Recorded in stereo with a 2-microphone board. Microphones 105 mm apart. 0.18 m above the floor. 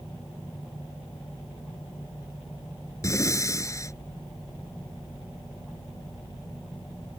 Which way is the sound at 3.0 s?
30° left (ahead or behind).